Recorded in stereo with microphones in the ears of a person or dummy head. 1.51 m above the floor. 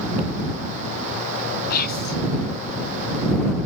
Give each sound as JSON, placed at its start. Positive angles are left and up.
{"t": 1.7, "sound": "whispering", "side_deg": 55}